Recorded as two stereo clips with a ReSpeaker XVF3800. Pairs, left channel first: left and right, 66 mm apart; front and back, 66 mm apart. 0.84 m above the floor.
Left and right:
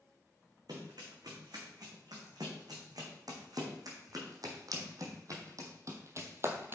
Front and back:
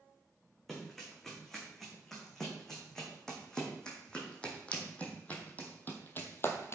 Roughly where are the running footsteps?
Right.